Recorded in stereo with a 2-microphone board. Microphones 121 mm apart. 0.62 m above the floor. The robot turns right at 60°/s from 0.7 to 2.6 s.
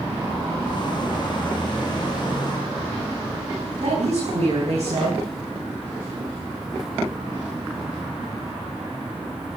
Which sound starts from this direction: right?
A woman speaking, at 3.8 s.